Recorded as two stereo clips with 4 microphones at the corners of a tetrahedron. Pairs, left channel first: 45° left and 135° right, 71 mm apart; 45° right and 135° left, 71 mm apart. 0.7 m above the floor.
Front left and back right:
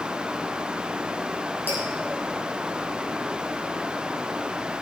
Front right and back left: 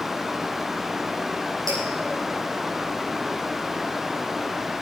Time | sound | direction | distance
1.7 | dripping | 105° left | 7 m